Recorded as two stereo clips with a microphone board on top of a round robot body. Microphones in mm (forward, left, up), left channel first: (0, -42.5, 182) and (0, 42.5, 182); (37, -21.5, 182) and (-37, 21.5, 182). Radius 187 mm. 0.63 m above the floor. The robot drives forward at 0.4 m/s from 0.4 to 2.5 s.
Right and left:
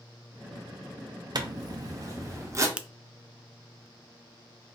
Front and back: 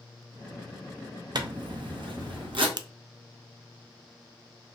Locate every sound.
1.4 s a zipper: 120° left, 0.8 m; by 2.7 s 145° left, 1.1 m
2.8 s a finger snap: 165° left, 0.5 m